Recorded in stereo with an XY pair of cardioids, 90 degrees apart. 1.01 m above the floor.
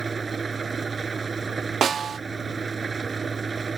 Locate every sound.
0.0 s an engine running: 40° right
1.8 s a snare drum: 55° right